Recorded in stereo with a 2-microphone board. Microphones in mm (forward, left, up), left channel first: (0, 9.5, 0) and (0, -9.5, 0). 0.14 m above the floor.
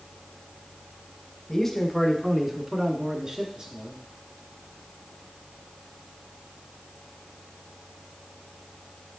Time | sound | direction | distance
1.5 | a man speaking | 20° left (ahead or behind) | 1.1 m